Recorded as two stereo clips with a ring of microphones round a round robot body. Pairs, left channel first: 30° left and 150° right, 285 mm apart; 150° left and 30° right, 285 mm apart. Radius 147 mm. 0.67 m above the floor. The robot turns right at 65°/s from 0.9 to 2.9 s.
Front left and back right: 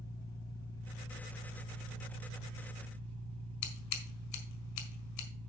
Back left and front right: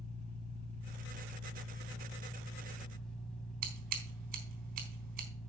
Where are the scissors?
5° right, 4 m.